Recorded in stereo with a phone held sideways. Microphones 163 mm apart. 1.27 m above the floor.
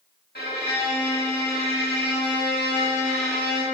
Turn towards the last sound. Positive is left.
turn(degrees=80)